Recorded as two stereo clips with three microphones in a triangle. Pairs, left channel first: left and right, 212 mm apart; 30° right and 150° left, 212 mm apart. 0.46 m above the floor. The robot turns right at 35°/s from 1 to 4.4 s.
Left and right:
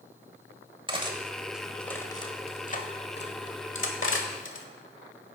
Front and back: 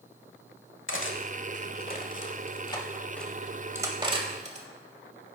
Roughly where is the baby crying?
No baby crying in this recording.